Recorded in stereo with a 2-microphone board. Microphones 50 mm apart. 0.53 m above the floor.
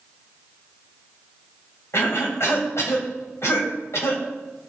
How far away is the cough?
About 3 m.